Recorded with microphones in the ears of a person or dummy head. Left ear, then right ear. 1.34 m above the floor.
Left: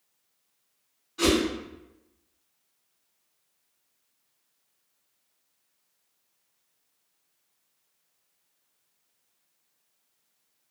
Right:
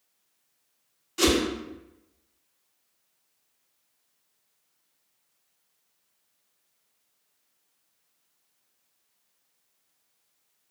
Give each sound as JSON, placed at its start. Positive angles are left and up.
{"t": 1.2, "sound": "a whoosh", "side_deg": -75, "distance_m": 1.0}